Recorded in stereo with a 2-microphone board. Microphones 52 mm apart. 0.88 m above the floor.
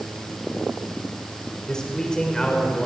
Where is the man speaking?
15° left (ahead or behind), 4 m.